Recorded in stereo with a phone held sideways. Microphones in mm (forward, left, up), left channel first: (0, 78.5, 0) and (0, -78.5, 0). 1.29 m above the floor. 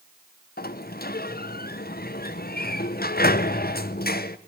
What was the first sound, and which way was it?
A sliding door, 75° left (ahead or behind).